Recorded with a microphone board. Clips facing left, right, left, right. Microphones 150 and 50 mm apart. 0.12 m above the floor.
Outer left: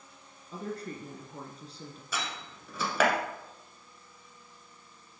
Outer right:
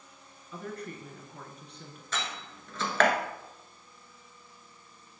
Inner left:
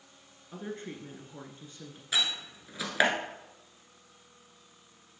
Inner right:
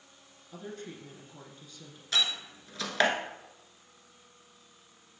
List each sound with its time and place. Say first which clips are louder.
0.5 s a woman speaking: outer left 2 dB, inner left 3 dB; 35° left (ahead or behind), 1.3 m
2.1 s a door slam: outer right 1 dB, inner right 1 dB; 10° left (ahead or behind), 1.1 m